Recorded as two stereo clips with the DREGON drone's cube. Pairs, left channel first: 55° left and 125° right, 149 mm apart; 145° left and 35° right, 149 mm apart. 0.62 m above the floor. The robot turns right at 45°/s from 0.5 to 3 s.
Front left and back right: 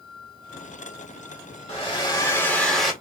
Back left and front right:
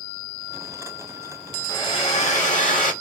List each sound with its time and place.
1.7 s a hair dryer: 95° left, 1.2 m; by 2.9 s 150° left, 1.2 m